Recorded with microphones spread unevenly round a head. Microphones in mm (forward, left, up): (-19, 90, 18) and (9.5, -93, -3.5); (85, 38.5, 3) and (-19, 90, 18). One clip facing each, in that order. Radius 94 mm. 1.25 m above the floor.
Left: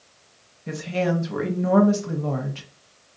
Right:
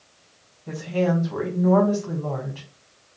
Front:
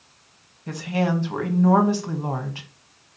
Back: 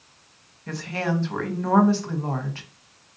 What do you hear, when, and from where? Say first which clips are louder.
0.7 s a woman speaking: right 1 dB, front 3 dB; 40° left, 0.9 m